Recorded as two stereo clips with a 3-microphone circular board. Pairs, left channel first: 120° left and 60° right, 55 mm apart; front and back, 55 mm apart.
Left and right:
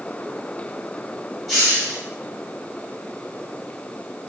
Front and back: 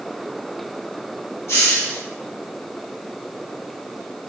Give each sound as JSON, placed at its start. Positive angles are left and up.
{"t": 1.5, "sound": "a hiss", "azimuth_deg": 30, "distance_m": 1.0}